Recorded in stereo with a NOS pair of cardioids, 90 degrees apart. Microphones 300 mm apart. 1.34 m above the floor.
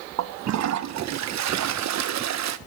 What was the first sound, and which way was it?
A toilet flushing, 65° right.